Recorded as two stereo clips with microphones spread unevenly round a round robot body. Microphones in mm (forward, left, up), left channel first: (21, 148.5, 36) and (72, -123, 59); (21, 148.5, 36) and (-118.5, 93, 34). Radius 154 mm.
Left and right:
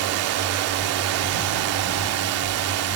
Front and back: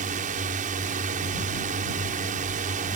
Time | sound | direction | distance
0.0 | a drone | 115° right | ?